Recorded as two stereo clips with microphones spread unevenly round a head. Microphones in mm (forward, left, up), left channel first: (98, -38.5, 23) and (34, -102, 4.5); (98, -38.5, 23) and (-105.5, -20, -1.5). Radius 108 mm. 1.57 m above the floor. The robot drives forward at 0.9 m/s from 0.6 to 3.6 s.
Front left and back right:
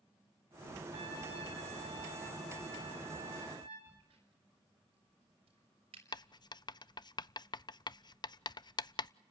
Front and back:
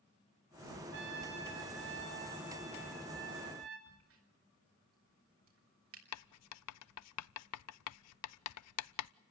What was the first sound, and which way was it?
A trumpet, 165° right.